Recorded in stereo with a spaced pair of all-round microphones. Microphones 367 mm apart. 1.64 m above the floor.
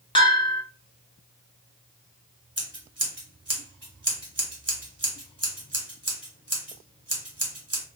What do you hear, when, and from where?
0.1 s a bell: 15° left (ahead or behind), 1.3 m
2.6 s scissors: 45° right (ahead or behind), 1.4 m